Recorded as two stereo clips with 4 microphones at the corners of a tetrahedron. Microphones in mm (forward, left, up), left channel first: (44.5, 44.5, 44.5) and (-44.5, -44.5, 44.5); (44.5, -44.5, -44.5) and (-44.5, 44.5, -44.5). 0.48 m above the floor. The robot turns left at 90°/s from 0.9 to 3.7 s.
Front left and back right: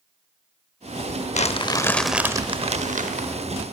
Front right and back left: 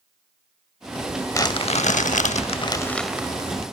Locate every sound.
1.3 s crumpling: 25° left, 0.5 m; by 3.6 s 175° left, 0.5 m